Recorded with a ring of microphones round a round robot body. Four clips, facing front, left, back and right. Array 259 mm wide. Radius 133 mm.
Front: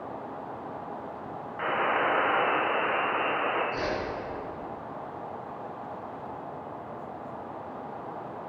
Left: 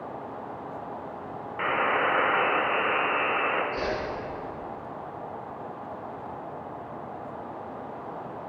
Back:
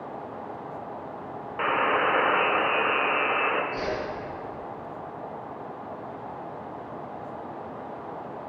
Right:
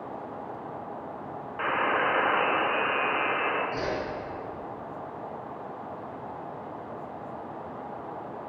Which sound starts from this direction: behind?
A buzzer, at 1.6 s.